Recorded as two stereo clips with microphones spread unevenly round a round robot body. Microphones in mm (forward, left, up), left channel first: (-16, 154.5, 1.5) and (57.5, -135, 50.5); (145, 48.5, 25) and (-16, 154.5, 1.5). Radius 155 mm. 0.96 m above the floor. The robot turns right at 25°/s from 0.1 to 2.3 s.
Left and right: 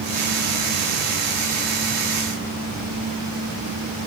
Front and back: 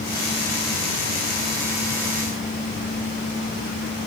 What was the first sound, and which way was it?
Only background noise.